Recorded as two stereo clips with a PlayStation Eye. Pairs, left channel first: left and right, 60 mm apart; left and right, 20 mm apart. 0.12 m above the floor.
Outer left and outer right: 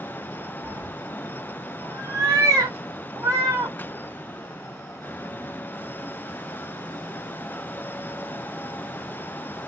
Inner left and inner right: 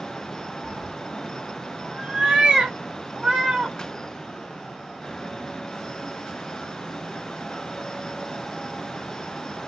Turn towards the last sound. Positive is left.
turn(degrees=-65)  # may be behind; listen again after turning